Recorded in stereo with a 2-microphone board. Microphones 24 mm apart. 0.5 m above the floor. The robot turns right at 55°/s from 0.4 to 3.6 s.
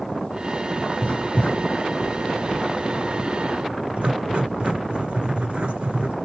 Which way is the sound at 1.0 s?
70° left (ahead or behind).